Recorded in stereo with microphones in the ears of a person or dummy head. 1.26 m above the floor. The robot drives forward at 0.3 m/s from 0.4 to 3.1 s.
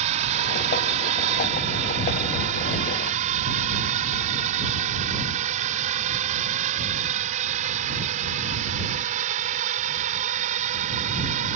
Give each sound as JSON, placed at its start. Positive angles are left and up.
{"t": 0.0, "sound": "a drone", "side_deg": -40}